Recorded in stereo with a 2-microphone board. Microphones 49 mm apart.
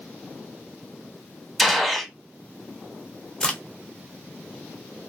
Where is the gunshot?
Centre (ahead or behind), 0.7 m.